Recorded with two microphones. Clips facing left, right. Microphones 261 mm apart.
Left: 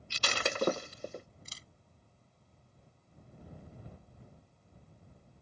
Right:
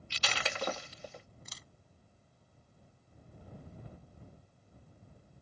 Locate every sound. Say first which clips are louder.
0.1 s breaking glass: left 4 dB; 50° left (ahead or behind)
1.4 s a camera shutter: right 1 dB; 30° left (ahead or behind)